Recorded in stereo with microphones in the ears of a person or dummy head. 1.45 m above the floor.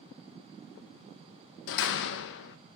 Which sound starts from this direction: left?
A door slam, at 1.7 s.